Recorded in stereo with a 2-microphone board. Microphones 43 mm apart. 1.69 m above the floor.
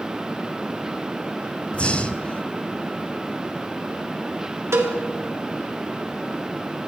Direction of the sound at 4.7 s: 85° right.